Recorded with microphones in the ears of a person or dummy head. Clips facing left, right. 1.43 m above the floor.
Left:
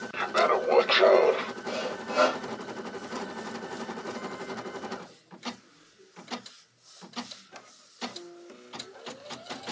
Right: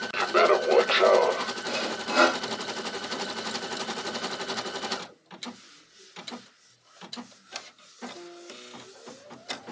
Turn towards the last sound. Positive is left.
turn(degrees=-85)